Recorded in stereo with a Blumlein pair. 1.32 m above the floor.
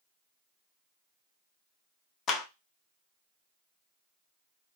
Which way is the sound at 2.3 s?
25° left.